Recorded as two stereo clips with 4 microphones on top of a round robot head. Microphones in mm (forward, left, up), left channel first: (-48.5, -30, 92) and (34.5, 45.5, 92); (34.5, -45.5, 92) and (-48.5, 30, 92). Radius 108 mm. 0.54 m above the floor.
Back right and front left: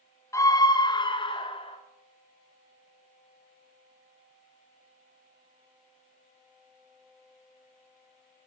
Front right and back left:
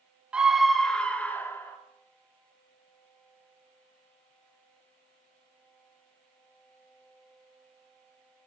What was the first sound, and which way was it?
A scream, 150° right.